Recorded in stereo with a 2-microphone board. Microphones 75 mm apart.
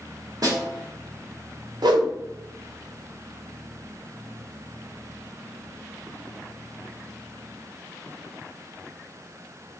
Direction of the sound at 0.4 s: 50° right (ahead or behind).